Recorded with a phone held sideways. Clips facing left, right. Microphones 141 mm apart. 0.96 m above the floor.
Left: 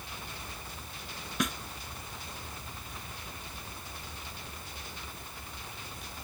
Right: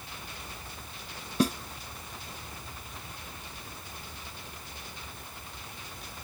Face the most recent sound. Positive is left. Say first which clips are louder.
# right 7 dB
turn(degrees=-30)  # may be behind; listen again after turning